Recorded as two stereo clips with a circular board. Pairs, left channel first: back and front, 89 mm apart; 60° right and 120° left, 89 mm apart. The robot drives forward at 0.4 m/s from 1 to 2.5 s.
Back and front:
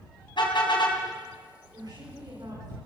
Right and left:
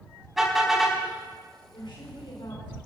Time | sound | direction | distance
0.4 | a car horn | 155° right | 5 m
1.7 | a woman speaking | 35° right | 6.5 m